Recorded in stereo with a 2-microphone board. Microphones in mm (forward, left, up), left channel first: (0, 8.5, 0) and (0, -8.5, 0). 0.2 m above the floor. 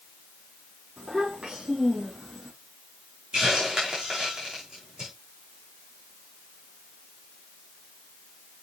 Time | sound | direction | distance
1.0 | a child speaking | 70° right (ahead or behind) | 4 m
3.3 | a hiss | 70° right (ahead or behind) | 4 m